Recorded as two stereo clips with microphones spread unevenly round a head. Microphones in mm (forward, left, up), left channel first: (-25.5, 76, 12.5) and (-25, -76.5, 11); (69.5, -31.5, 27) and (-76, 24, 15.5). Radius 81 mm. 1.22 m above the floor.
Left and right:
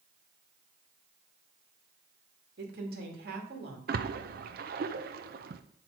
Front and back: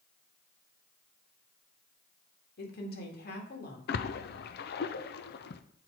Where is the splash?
50° right, 0.5 m.